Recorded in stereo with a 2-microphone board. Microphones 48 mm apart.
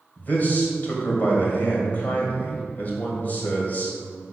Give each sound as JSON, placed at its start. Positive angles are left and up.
{"t": 0.2, "sound": "a man speaking", "side_deg": 35, "distance_m": 2.0}